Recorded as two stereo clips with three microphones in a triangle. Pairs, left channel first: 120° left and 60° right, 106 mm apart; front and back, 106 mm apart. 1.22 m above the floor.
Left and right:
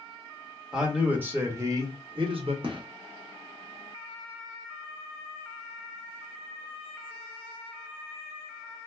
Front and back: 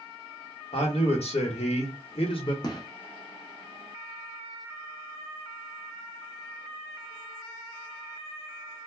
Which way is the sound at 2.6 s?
35° right.